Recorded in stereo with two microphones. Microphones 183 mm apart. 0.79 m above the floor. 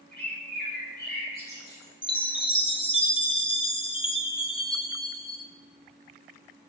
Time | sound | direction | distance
0.1 | a bird | 60° left (ahead or behind) | 1.6 m
2.0 | a chime | 30° left (ahead or behind) | 0.6 m